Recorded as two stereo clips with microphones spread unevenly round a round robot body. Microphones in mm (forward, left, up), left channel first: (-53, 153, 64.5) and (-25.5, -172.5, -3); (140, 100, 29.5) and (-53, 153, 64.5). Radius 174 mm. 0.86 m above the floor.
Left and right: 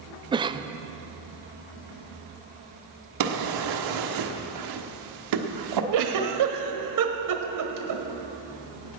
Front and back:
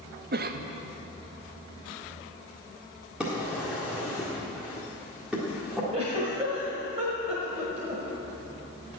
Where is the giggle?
125° right, 1.4 m.